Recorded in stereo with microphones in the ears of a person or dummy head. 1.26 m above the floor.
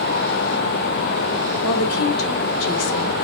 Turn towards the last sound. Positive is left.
turn(degrees=85)